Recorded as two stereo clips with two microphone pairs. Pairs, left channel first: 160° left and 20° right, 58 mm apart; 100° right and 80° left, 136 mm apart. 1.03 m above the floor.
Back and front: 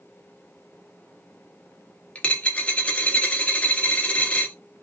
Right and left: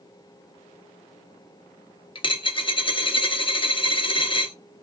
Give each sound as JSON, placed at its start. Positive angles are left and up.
{"t": 2.1, "sound": "a dropped coin", "azimuth_deg": -140, "distance_m": 0.6}